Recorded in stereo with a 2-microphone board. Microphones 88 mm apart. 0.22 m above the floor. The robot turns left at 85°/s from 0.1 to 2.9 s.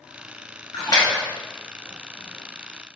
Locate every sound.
0.7 s a splash: 70° left (ahead or behind), 1.3 m; by 1.3 s 35° left (ahead or behind), 1.3 m